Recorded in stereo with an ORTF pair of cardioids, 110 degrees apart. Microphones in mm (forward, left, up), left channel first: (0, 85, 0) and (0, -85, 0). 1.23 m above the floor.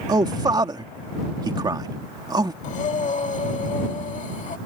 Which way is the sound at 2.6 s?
50° left.